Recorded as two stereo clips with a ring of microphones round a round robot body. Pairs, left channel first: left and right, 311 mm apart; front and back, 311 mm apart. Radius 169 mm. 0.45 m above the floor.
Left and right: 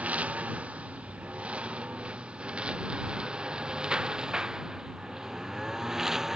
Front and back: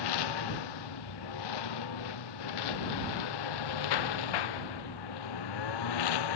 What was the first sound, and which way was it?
A lawn mower, 5° right.